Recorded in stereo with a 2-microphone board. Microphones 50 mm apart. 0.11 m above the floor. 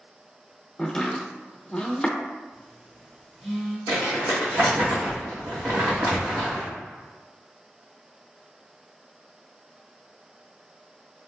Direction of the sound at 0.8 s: 15° left (ahead or behind).